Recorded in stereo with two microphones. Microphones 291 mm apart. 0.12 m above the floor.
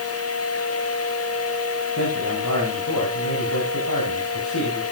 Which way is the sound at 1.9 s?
80° left.